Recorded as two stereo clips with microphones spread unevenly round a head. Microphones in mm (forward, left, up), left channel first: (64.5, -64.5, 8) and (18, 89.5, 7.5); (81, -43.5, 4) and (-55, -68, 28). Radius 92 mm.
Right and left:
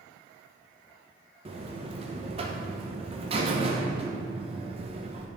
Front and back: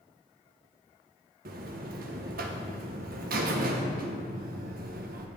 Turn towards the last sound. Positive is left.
turn(degrees=165)